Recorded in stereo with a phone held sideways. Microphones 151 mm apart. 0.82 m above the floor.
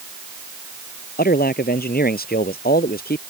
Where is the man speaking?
90° left.